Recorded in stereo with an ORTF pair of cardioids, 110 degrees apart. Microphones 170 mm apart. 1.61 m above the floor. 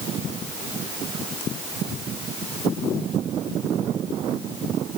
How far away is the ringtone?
No ringtone in this recording.